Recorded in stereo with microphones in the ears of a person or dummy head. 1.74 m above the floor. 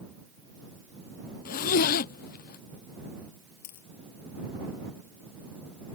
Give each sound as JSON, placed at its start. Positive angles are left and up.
{"t": 1.4, "sound": "a zipper", "side_deg": 50}
{"t": 3.6, "sound": "a dropped coin", "side_deg": 60}